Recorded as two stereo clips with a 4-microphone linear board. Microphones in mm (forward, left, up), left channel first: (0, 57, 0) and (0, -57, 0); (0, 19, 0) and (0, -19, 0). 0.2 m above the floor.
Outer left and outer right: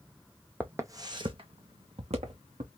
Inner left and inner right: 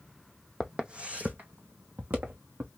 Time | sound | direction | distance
0.6 | footsteps | 15° right (ahead or behind) | 0.5 m